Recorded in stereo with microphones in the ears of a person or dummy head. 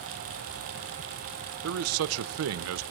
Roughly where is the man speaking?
Right.